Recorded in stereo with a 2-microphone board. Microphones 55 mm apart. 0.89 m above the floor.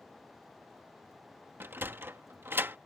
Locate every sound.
1.6 s a sliding door: 45° right (ahead or behind)